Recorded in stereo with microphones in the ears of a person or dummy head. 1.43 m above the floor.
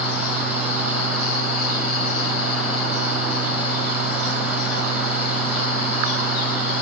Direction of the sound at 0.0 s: Centre (ahead or behind).